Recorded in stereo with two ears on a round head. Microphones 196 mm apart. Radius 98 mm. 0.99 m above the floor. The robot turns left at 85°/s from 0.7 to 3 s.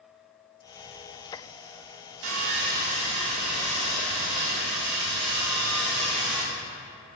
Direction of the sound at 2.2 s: 85° right.